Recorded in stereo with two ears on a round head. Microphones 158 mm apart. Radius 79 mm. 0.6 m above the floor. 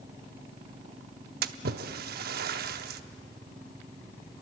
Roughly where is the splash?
Right.